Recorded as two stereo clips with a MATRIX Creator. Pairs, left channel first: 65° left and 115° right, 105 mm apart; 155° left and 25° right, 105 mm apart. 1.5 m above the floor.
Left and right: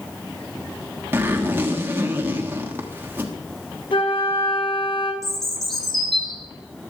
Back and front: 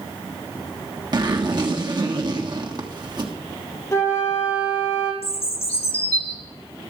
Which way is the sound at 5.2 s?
155° left.